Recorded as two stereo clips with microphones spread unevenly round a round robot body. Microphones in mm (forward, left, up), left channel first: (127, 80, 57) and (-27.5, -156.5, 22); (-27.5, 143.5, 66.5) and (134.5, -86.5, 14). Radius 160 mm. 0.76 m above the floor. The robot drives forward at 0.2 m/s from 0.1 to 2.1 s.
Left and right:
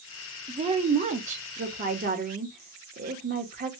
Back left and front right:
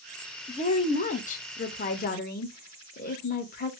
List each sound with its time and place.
0.5 s a woman speaking: 165° right, 0.5 m; by 3.7 s 170° right, 0.7 m